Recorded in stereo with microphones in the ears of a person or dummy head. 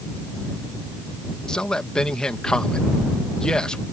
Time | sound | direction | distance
1.5 | a man speaking | 10° left (ahead or behind) | ?